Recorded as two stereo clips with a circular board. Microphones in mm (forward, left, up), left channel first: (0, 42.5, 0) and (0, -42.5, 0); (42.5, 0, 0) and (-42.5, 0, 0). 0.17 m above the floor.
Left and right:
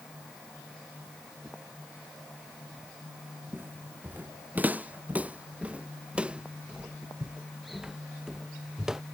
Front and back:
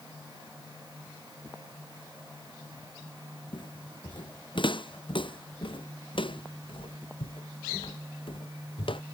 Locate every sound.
3.5 s footsteps: 25° right; by 9.0 s 5° right